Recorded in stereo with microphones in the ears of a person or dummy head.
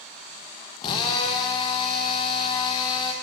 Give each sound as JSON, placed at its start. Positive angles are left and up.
{"t": 0.8, "sound": "a drill", "side_deg": 30, "distance_m": 1.4}